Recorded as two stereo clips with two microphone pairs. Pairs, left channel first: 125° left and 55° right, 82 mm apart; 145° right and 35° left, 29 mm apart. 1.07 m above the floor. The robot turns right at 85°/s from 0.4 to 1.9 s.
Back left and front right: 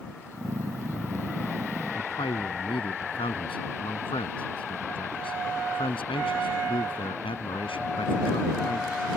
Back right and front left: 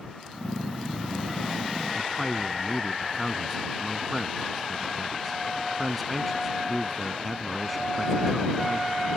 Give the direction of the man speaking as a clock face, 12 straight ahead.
8 o'clock.